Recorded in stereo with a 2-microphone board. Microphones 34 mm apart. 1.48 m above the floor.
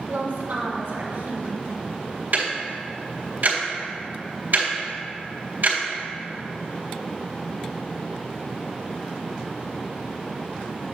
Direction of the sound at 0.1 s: 80° right.